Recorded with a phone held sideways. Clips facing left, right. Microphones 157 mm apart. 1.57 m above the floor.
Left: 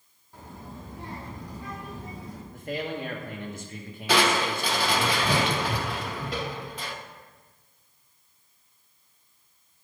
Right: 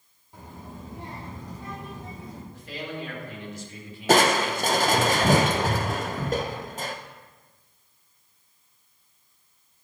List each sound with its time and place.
0.3 s a child speaking: 15° right (ahead or behind), 2.0 m; by 2.4 s 25° right (ahead or behind), 3.5 m
2.5 s a man speaking: 55° left (ahead or behind), 1.5 m
4.1 s crushing: 45° right (ahead or behind), 0.5 m